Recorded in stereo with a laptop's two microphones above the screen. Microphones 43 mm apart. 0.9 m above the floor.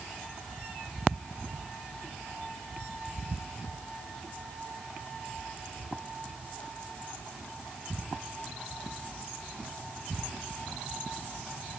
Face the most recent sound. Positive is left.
No sound to turn to.